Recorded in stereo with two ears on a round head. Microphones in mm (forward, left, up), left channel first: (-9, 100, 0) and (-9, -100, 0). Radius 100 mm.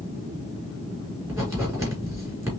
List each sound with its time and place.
1.3 s writing: 15° right (ahead or behind), 2.5 m